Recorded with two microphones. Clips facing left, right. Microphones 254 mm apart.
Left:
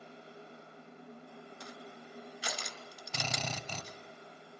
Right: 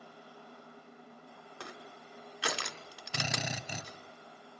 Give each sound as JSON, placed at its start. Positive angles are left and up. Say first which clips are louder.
{"t": 1.6, "sound": "crushing", "louder": "right 4 dB", "side_deg": -75, "distance_m": 1.5}
{"t": 3.1, "sound": "a drill", "louder": "right 2 dB", "side_deg": -15, "distance_m": 1.8}